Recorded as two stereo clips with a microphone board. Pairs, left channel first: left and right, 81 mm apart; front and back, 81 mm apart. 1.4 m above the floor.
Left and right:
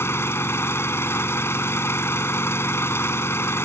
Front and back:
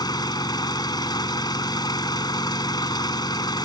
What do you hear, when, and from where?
0.0 s an engine running: 30° left